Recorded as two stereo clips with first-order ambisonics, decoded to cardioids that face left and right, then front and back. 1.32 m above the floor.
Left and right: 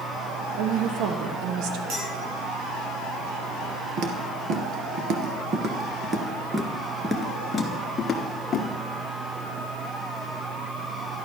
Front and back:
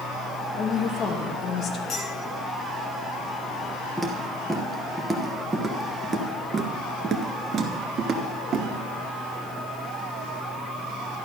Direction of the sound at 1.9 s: 65° right.